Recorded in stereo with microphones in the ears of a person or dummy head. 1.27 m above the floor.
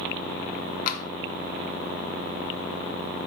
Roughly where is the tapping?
Left.